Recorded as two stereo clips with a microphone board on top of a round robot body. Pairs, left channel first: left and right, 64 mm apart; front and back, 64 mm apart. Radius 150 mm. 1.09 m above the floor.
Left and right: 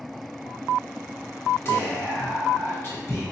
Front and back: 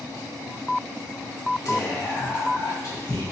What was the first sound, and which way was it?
Whispering, 35° left.